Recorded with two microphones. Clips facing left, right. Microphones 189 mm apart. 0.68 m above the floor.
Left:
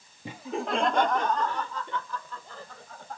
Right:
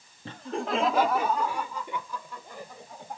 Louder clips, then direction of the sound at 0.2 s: Even; 10° left (ahead or behind).